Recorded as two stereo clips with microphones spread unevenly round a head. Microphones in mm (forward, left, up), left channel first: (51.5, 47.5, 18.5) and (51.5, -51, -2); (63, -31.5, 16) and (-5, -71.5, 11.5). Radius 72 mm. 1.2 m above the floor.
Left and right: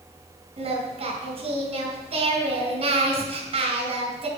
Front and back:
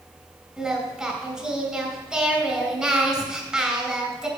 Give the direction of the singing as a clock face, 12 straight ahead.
2 o'clock.